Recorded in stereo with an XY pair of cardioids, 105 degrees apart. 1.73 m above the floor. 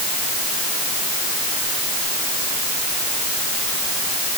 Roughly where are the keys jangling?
I don't hear keys jangling.